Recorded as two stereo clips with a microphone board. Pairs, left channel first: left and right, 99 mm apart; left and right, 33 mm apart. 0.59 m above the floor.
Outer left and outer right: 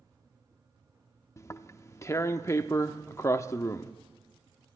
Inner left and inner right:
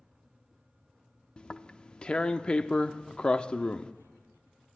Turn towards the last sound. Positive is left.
turn(degrees=30)  # may be behind; listen again after turning